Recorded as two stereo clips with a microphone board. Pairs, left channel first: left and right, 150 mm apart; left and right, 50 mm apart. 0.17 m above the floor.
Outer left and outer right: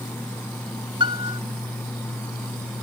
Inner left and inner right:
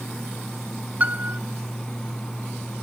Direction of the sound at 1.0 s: 35° right (ahead or behind).